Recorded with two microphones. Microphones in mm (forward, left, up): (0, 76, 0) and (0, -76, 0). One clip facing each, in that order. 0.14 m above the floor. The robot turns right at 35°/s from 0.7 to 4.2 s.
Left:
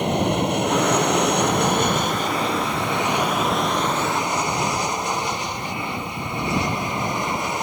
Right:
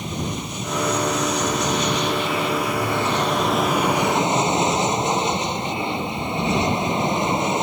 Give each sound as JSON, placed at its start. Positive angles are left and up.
{"t": 0.0, "sound": "an aircraft", "azimuth_deg": 80}